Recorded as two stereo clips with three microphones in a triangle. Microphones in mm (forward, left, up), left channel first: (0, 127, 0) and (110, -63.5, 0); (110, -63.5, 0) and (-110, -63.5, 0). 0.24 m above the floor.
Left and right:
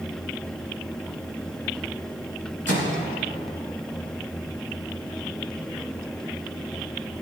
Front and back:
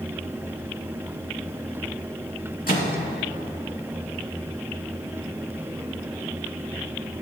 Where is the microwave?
40° right, 2.5 m.